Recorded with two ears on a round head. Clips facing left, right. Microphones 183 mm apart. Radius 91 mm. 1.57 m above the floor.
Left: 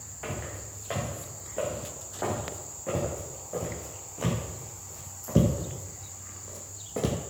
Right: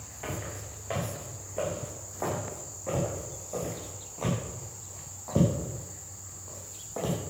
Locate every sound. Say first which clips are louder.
0.2 s footsteps: even; centre (ahead or behind), 6 m; by 7.2 s 30° left (ahead or behind), 3 m